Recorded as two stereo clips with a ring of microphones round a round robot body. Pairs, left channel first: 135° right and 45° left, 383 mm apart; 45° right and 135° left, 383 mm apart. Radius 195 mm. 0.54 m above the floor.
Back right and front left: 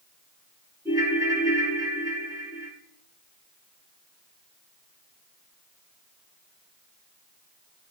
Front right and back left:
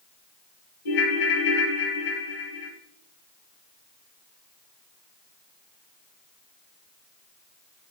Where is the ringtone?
40° right, 2.5 m.